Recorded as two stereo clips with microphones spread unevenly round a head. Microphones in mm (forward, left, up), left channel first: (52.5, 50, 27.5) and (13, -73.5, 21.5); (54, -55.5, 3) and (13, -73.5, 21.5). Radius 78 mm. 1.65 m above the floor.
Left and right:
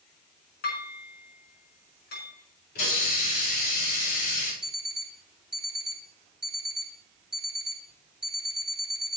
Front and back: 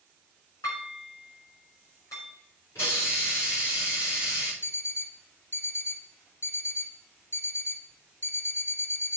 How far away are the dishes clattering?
About 5 m.